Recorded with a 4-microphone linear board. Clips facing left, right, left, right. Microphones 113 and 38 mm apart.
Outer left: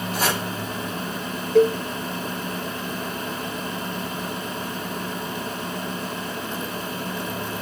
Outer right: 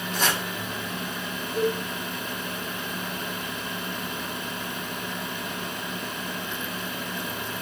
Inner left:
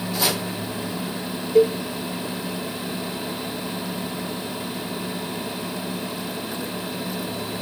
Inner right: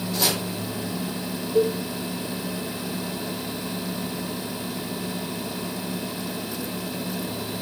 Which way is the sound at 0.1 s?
5° left (ahead or behind).